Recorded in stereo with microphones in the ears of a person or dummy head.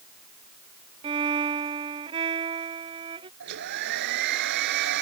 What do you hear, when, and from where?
1.0 s a violin: 30° right (ahead or behind)
3.4 s a hair dryer: 65° right (ahead or behind)